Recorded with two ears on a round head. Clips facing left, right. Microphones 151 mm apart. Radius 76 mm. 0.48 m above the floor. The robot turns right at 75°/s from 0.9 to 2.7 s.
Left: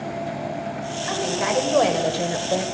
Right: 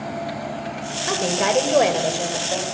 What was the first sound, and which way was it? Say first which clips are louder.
A woman speaking: right 3 dB; 75° right.